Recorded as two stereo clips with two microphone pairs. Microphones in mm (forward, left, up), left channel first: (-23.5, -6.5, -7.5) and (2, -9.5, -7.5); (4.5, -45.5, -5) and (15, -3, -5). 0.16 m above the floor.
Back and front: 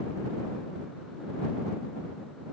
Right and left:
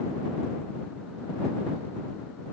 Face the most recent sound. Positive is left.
No sound to turn to.